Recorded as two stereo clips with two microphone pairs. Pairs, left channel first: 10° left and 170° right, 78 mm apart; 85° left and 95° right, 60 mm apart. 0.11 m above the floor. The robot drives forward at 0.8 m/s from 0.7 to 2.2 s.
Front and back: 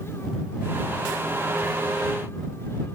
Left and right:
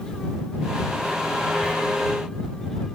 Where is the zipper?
150° right, 0.5 m; by 1.8 s 155° right, 0.6 m.